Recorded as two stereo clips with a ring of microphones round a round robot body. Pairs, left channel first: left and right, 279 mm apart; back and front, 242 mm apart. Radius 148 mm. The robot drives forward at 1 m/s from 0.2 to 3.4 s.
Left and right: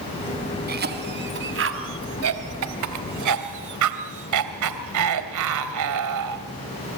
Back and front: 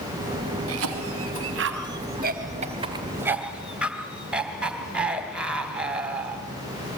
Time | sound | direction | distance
0.7 | a cough | 35° right | 3.5 m